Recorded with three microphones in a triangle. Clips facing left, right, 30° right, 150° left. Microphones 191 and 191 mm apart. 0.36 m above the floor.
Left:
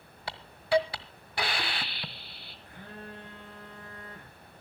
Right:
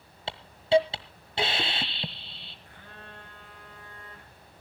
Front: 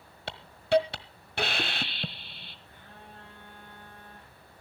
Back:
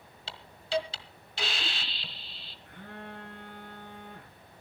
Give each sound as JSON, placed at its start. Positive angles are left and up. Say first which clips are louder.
{"t": 0.3, "sound": "a hiss", "louder": "right 4 dB, front 8 dB", "azimuth_deg": -30, "distance_m": 1.4}
{"t": 2.6, "sound": "a phone buzzing", "louder": "left 7 dB, back 11 dB", "azimuth_deg": 140, "distance_m": 8.0}